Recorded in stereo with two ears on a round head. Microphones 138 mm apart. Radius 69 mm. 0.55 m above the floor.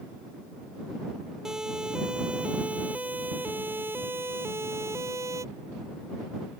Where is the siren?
5° right (ahead or behind); by 5.5 s 20° right (ahead or behind).